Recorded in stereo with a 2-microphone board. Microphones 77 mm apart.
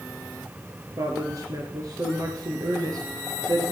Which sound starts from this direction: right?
A woman speaking, at 1.0 s.